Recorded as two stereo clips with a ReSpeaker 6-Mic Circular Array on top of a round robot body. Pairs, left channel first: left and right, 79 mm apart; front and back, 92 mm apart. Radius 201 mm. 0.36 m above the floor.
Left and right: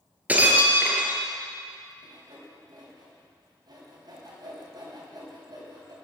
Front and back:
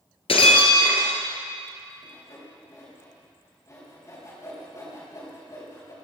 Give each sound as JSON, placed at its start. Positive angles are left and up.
{"t": 0.3, "sound": "breaking glass", "azimuth_deg": -20, "distance_m": 2.5}
{"t": 2.0, "sound": "sawing", "azimuth_deg": -55, "distance_m": 4.5}